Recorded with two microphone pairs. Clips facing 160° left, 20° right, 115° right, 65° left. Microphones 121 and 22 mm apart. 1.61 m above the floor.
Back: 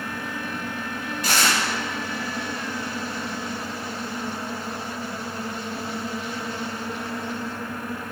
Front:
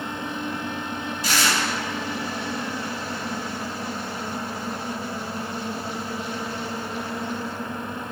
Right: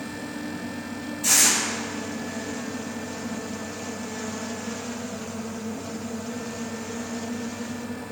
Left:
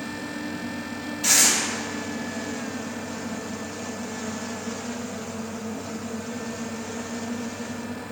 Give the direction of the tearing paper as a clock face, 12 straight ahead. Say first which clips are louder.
Back 1 dB, left 1 dB; 8 o'clock.